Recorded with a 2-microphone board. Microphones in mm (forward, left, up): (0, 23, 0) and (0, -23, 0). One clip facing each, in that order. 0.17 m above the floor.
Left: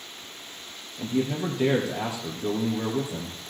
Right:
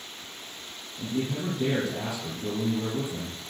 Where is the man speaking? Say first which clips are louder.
Left 3 dB; 65° left (ahead or behind), 3 m.